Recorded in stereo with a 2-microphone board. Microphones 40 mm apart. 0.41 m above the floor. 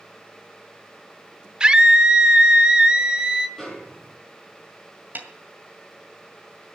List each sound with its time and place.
1.6 s a scream: 20° right (ahead or behind), 0.8 m
3.6 s a snare drum: 5° left (ahead or behind), 3.5 m
5.2 s a snare drum: 50° right (ahead or behind), 1.9 m